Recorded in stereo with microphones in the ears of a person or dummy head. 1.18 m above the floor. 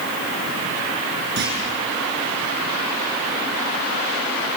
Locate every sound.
1.4 s a clunk: 65° right (ahead or behind), 6 m